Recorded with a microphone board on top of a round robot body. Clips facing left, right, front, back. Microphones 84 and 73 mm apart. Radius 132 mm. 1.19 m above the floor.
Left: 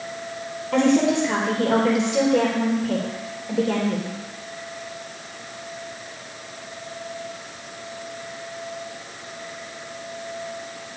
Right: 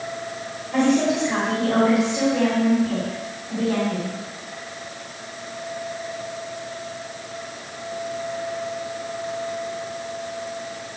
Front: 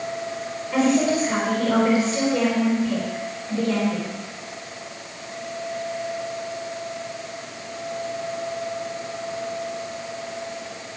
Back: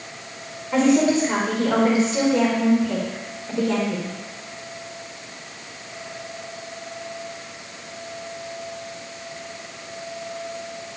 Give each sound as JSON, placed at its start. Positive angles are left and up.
{"t": 0.7, "sound": "a woman speaking", "azimuth_deg": 110, "distance_m": 4.0}